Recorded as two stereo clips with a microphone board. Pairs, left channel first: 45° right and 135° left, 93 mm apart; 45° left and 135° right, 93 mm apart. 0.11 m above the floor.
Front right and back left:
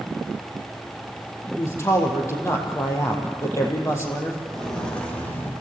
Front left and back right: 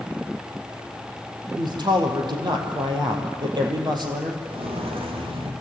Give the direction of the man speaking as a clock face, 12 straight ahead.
3 o'clock.